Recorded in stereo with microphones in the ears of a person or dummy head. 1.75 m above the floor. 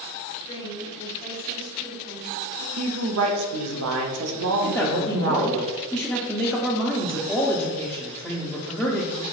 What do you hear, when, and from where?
0.5 s a woman speaking: 25° left (ahead or behind), 1.6 m; by 2.7 s 20° right (ahead or behind), 1.4 m
2.8 s a woman speaking: 90° right, 0.8 m
4.6 s a man speaking: 5° right (ahead or behind), 0.5 m